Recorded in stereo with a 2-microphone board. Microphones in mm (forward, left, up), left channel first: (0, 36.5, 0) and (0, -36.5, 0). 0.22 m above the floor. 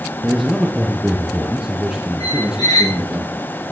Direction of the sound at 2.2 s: 65° left (ahead or behind).